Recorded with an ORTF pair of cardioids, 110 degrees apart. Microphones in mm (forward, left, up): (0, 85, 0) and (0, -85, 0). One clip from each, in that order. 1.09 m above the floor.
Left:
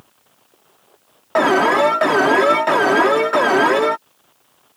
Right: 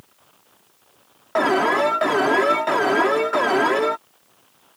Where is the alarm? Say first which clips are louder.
Left 4 dB; 25° left.